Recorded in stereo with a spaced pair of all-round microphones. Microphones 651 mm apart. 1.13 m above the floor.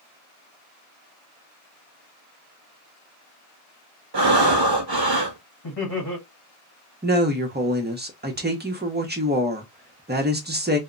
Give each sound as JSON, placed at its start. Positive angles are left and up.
{"t": 4.1, "sound": "breathing", "side_deg": -35, "distance_m": 0.7}
{"t": 5.6, "sound": "laughter", "side_deg": 40, "distance_m": 1.1}
{"t": 7.0, "sound": "a woman speaking", "side_deg": -15, "distance_m": 0.7}